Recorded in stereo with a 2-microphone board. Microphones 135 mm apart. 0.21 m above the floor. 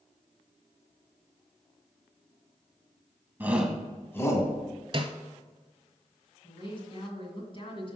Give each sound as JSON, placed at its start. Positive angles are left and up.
{"t": 3.4, "sound": "a shout", "side_deg": -15, "distance_m": 1.4}
{"t": 4.9, "sound": "a snare drum", "side_deg": -40, "distance_m": 0.9}
{"t": 6.4, "sound": "a woman speaking", "side_deg": 40, "distance_m": 2.0}